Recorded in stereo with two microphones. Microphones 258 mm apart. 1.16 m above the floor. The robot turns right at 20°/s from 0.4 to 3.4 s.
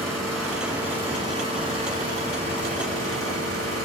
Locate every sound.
0.0 s an engine running: straight behind, 4.5 m; by 3.9 s 120° right, 4.5 m